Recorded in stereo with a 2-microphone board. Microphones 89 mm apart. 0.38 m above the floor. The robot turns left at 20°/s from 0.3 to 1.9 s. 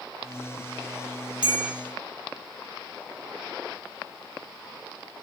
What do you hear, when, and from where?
1.4 s a bell: 55° left (ahead or behind), 0.5 m; by 1.8 s 50° left (ahead or behind), 0.5 m